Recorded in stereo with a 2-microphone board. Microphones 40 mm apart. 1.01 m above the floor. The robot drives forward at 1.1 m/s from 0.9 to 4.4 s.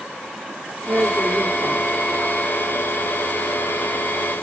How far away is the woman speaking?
About 1.9 m.